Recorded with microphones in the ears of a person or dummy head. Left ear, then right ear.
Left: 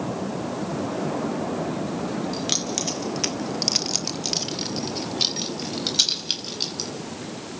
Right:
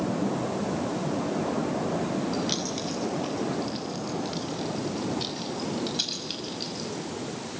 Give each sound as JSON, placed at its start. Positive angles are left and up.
{"t": 2.3, "sound": "keys jangling", "side_deg": 25, "distance_m": 2.0}